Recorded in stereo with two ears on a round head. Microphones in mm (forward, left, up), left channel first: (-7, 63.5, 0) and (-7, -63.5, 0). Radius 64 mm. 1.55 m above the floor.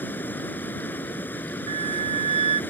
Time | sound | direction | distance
0.0 | running water | 15° left (ahead or behind) | ?
1.7 | a flute | 45° right (ahead or behind) | ?